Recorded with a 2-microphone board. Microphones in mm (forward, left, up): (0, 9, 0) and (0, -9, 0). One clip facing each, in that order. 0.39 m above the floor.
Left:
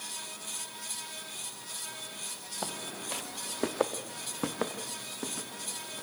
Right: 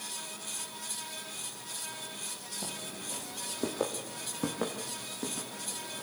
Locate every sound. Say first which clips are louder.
2.6 s footsteps: left 4 dB; 75° left (ahead or behind), 1.8 m; by 6.0 s 15° left (ahead or behind), 5 m